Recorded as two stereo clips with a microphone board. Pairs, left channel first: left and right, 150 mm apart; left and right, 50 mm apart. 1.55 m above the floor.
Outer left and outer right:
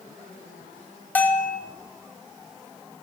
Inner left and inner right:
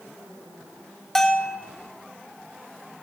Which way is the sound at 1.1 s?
10° left (ahead or behind).